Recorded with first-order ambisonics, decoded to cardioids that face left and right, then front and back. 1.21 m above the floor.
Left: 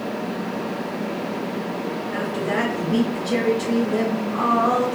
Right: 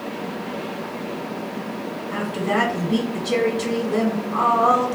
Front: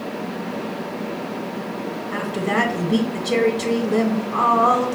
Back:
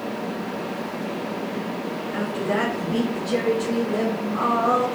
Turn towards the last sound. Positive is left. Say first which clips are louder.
# right 2 dB, front 3 dB
turn(degrees=-25)